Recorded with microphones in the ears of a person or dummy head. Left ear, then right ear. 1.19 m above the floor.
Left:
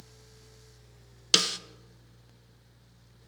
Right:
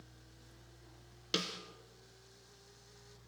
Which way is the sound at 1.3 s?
35° left (ahead or behind).